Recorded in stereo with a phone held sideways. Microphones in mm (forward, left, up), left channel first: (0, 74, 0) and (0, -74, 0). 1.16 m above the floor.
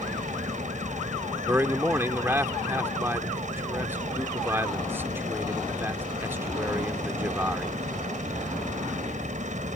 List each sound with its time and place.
0.0 s a machine running: 55° right (ahead or behind)
1.5 s a man speaking: 15° right (ahead or behind)